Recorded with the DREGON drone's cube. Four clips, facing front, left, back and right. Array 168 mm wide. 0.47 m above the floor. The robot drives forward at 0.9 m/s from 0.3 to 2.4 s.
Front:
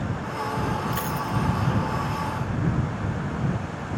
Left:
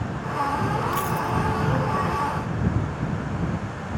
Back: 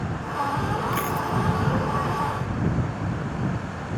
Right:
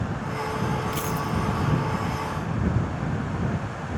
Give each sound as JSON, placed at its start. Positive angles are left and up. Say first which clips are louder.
{"t": 0.9, "sound": "a dropped coin", "louder": "left 3 dB, back 2 dB", "azimuth_deg": 180}